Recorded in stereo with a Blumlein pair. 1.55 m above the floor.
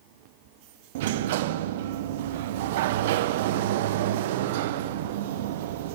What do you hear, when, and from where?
0.9 s a sliding door: 55° right, 1.2 m